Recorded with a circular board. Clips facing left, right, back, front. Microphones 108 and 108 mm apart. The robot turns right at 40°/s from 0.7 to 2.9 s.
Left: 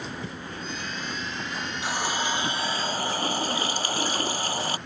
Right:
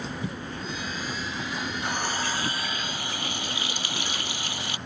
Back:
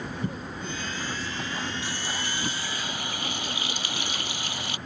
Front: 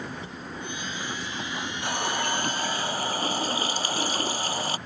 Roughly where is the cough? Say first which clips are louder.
Right 2 dB, back 3 dB; behind.